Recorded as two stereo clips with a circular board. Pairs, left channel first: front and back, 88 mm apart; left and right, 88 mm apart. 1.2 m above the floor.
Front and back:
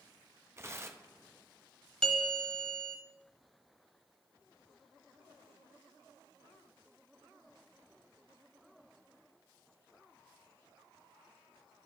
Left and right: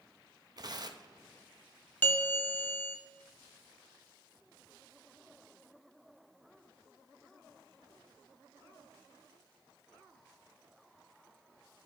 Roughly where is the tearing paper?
Behind right.